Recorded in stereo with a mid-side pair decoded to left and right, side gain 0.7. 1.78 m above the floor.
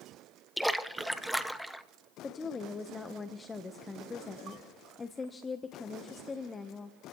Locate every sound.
0.6 s a splash: straight ahead, 0.9 m
2.2 s a woman speaking: 20° left, 1.1 m